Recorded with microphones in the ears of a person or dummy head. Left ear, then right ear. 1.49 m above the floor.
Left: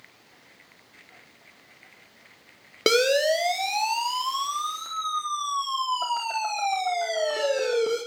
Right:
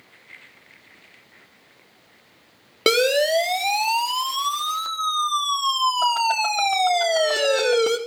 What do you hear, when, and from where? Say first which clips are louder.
2.9 s a siren: right 2 dB; 5° right (ahead or behind), 4 m; by 8.0 s 55° right (ahead or behind), 5 m